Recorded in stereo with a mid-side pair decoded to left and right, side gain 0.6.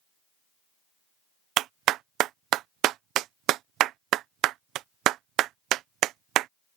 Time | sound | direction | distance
1.6 | a clap | 65° right | ?